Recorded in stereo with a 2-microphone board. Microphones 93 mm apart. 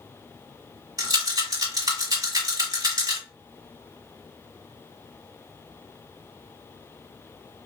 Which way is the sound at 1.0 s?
45° right (ahead or behind).